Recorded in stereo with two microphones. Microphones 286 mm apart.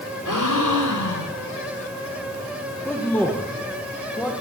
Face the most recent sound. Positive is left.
turn(degrees=5)  # may be behind; listen again after turning